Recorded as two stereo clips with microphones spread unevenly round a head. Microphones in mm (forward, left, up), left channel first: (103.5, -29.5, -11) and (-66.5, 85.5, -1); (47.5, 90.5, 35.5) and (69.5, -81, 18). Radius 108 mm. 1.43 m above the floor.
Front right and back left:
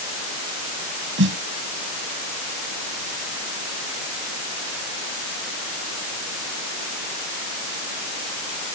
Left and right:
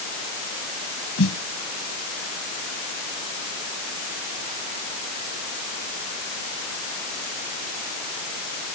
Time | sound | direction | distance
1.2 | a snare drum | 115° left | ?